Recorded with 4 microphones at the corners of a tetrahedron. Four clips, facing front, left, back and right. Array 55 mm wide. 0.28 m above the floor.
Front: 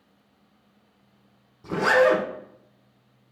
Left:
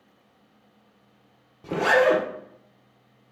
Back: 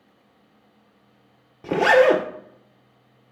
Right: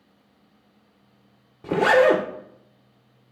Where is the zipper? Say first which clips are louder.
Right 3 dB, back 3 dB; 165° right, 1.6 m.